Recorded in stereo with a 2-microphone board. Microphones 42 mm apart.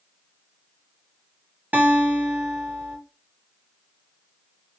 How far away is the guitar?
About 2.0 m.